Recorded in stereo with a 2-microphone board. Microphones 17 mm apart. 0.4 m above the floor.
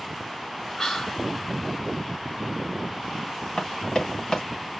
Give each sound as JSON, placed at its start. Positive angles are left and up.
{"t": 0.8, "sound": "whispering", "side_deg": 40, "distance_m": 1.9}
{"t": 3.6, "sound": "running footsteps", "side_deg": 40, "distance_m": 3.5}